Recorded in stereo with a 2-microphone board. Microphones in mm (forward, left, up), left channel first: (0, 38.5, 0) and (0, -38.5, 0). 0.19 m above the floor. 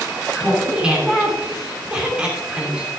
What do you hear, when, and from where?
0.3 s laughter: 15° right (ahead or behind), 2.5 m